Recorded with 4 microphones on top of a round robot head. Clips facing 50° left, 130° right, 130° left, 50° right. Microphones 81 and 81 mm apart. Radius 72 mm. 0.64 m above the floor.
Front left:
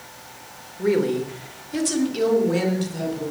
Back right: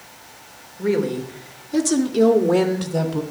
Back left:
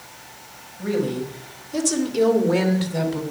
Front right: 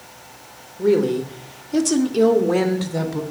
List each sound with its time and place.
0.8 s a woman speaking: 35° right, 3 m; by 3.2 s 120° right, 3 m